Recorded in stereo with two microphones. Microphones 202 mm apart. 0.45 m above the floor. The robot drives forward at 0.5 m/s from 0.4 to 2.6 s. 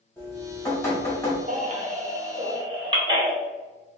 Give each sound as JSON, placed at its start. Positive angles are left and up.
{"t": 0.2, "sound": "dripping", "side_deg": 10, "distance_m": 1.3}
{"t": 1.5, "sound": "a baby crying", "side_deg": -40, "distance_m": 0.6}